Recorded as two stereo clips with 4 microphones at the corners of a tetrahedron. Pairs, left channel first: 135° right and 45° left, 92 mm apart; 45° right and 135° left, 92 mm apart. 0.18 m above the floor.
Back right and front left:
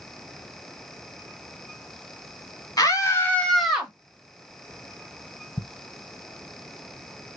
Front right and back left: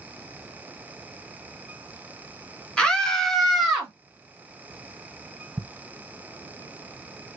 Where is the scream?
120° right, 1.5 m; by 3.9 s 75° left, 1.2 m.